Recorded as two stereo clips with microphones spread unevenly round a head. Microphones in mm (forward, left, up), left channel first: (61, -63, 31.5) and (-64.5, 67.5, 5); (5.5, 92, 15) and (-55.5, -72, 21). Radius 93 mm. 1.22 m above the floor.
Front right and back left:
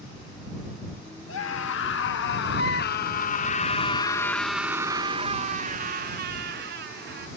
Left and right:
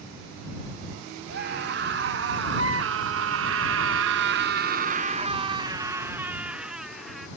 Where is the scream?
70° right; by 7.3 s 160° left.